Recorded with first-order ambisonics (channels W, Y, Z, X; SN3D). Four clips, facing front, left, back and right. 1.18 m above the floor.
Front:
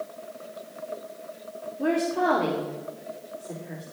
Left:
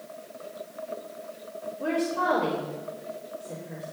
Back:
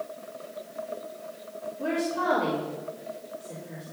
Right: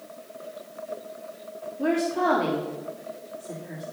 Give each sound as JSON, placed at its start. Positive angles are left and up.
{"t": 1.8, "sound": "a woman speaking", "azimuth_deg": -75, "distance_m": 3.0}